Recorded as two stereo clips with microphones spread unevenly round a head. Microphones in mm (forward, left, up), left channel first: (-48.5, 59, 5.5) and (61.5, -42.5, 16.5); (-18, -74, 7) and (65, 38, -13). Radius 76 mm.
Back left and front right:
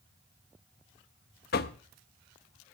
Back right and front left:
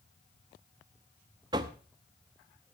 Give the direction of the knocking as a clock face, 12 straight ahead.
8 o'clock.